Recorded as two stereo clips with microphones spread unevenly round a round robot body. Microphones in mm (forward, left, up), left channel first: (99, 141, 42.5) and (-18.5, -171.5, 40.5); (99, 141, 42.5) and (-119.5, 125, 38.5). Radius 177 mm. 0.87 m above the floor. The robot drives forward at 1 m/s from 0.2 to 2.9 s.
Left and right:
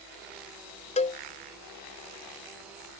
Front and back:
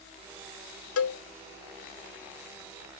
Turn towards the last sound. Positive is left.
turn(degrees=-60)